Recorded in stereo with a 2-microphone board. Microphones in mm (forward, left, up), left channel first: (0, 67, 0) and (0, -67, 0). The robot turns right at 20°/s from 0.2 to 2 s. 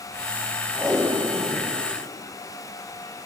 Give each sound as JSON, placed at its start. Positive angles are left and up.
{"t": 0.7, "sound": "tape being pulled", "side_deg": -25, "distance_m": 4.5}